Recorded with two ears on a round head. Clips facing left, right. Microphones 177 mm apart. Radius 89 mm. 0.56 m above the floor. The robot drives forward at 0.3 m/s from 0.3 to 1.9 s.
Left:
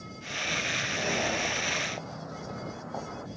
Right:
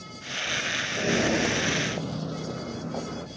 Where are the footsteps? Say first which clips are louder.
Right 7 dB; 25° right (ahead or behind); by 3.3 s 35° right (ahead or behind).